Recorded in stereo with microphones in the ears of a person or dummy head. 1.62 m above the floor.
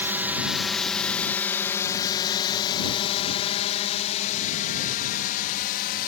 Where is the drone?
5° right (ahead or behind); by 6.1 s 55° left (ahead or behind).